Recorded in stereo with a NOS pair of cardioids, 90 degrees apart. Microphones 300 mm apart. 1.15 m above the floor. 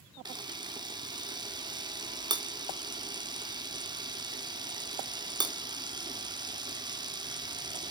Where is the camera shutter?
15° right, 1.2 m.